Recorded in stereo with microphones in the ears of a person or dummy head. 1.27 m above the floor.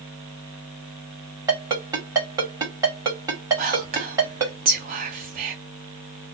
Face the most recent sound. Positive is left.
turn(degrees=-35)  # may be behind; listen again after turning